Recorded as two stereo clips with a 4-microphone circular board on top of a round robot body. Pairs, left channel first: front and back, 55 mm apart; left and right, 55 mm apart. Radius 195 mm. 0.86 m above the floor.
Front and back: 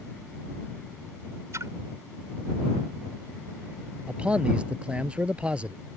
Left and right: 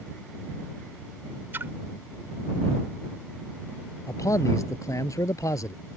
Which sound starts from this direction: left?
A man speaking, at 4.1 s.